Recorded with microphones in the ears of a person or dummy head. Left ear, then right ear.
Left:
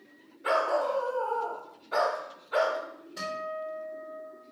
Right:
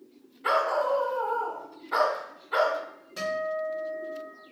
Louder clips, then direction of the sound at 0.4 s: Right 2 dB; 20° right (ahead or behind).